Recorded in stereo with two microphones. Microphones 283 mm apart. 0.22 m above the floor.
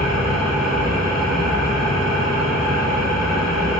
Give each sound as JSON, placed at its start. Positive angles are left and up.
{"t": 0.0, "sound": "an engine running", "side_deg": 65, "distance_m": 1.5}